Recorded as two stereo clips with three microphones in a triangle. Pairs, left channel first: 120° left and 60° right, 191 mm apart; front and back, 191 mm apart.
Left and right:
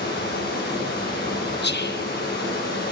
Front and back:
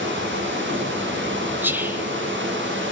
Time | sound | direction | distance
0.0 | running water | 155° left | 10 m
1.6 | whispering | 100° left | 2 m